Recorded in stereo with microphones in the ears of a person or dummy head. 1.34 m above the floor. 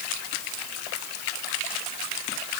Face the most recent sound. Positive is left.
No sound to turn to.